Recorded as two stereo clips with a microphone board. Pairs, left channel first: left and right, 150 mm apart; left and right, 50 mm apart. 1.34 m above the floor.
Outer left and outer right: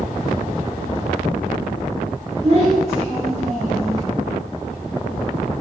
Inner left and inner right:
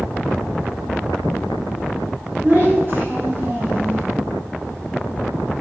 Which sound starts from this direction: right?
A child speaking, at 2.4 s.